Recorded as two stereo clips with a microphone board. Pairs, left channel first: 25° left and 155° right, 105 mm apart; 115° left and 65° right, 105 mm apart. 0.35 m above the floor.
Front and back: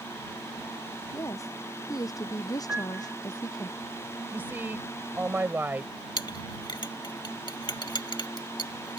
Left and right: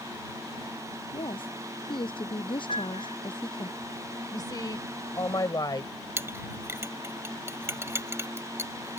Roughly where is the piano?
Behind left.